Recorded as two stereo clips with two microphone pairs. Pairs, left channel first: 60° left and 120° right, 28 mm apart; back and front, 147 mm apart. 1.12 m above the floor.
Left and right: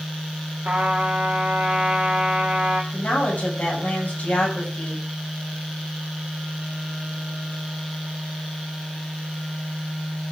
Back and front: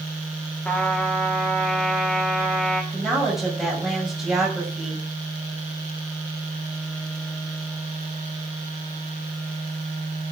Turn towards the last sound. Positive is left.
turn(degrees=90)